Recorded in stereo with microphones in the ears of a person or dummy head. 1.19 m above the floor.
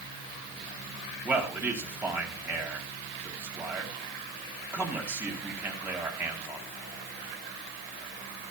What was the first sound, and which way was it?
A man speaking, 10° right (ahead or behind).